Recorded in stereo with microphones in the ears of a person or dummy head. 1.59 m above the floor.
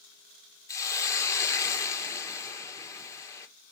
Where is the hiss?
20° left (ahead or behind), 1.6 m.